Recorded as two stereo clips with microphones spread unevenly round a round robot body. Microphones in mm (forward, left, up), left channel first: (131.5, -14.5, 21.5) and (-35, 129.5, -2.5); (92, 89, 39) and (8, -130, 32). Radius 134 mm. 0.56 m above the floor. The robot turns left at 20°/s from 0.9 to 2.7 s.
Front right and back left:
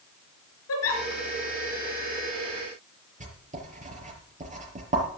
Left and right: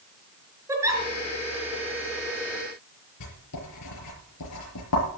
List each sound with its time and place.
0.7 s a giggle: 35° right, 4 m
3.2 s writing: 85° left, 5 m